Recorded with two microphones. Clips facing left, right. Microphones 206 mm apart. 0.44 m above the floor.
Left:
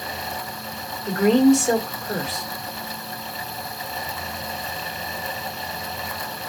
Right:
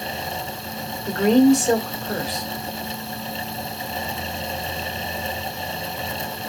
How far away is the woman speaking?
About 1.3 m.